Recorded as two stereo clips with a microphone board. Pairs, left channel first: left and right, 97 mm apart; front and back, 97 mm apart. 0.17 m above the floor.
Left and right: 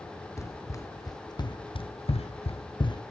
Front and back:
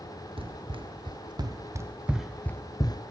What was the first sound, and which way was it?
Running footsteps, 150° left.